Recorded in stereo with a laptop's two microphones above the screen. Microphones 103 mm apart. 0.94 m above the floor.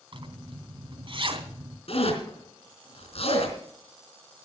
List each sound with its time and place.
0.1 s a zipper: 55° right (ahead or behind), 3 m
1.9 s a zipper: 70° left (ahead or behind), 4 m